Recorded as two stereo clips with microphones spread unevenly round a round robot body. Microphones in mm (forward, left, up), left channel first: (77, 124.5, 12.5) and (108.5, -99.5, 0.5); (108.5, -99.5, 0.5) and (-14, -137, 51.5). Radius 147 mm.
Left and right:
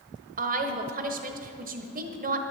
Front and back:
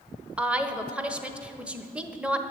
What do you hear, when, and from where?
0.4 s a woman speaking: 60° right, 1.2 m